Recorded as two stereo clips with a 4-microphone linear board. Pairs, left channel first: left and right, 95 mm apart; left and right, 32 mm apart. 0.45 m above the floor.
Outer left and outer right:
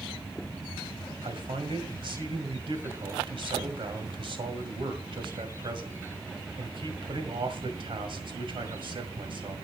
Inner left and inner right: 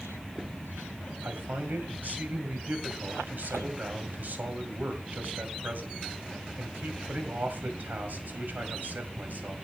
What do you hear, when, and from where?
1.2 s a man speaking: 65° right (ahead or behind), 2.0 m